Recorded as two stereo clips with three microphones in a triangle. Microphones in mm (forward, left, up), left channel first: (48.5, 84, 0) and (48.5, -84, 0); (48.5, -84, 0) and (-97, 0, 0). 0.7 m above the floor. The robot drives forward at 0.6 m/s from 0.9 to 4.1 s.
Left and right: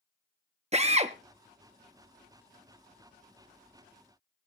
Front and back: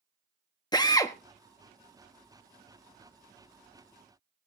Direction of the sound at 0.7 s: 85° right.